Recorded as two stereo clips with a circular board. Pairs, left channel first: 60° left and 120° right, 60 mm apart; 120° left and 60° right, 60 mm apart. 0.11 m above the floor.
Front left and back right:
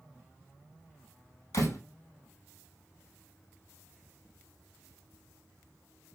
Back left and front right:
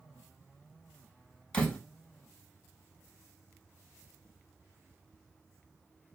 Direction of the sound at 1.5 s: 50° left.